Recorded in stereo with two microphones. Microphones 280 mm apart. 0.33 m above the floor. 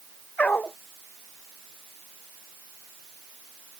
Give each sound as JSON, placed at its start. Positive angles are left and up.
{"t": 0.4, "sound": "a dog barking", "side_deg": 5}